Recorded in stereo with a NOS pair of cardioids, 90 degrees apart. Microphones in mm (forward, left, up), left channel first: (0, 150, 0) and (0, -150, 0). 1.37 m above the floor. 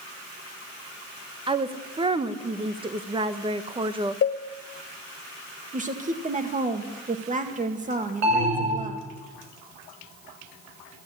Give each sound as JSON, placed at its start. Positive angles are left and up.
{"t": 1.5, "sound": "a woman speaking", "azimuth_deg": -15, "distance_m": 1.1}
{"t": 4.2, "sound": "a cowbell", "azimuth_deg": 40, "distance_m": 0.8}
{"t": 5.7, "sound": "a woman speaking", "azimuth_deg": -25, "distance_m": 2.0}
{"t": 8.2, "sound": "an alarm", "azimuth_deg": -65, "distance_m": 7.0}